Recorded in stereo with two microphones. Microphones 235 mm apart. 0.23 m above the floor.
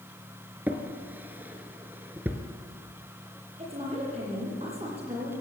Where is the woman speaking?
25° right (ahead or behind), 8.5 m.